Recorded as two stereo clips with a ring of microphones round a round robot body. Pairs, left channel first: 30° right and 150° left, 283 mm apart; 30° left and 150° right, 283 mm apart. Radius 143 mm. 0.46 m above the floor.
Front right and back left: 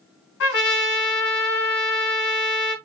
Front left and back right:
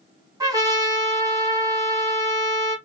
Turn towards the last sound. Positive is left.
turn(degrees=-75)